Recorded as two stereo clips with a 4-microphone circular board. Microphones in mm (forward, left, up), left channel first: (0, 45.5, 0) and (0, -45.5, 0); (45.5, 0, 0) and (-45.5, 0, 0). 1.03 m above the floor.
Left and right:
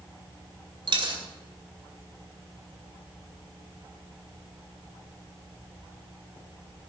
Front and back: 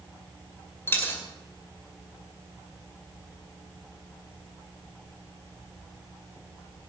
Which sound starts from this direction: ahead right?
A dropped coin, at 0.9 s.